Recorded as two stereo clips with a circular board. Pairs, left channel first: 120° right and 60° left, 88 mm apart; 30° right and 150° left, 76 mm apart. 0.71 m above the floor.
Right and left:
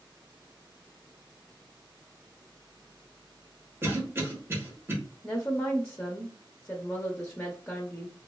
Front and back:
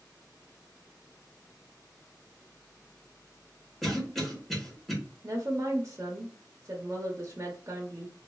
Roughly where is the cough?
Ahead left.